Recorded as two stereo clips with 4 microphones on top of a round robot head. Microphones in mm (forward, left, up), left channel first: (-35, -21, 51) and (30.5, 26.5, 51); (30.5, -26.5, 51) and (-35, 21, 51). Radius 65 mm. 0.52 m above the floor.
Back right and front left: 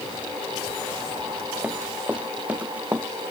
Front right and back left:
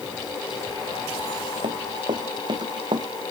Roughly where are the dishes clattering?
I don't hear dishes clattering.